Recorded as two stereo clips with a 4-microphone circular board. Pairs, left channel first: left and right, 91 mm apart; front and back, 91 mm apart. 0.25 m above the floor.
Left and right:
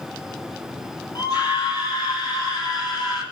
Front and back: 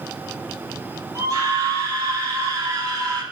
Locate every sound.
1.1 s a scream: 135° left, 8 m